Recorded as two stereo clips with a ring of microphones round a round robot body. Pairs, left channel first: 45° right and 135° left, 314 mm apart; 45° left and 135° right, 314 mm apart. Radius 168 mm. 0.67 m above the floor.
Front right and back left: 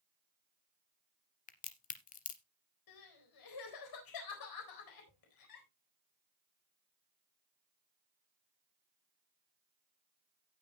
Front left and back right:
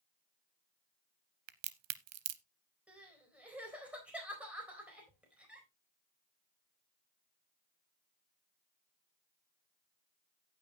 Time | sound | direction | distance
1.5 | a crack | 105° right | 0.7 m
2.9 | crying | 50° right | 4 m